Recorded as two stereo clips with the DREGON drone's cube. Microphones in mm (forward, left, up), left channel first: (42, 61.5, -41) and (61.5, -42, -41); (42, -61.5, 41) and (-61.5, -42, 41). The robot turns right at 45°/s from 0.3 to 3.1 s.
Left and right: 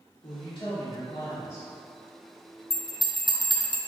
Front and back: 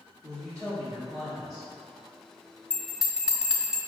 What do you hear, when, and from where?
0.2 s a woman speaking: 100° left, 1.4 m; by 1.7 s 165° left, 1.4 m
2.7 s a bell: 70° left, 0.6 m; by 3.8 s 90° left, 0.6 m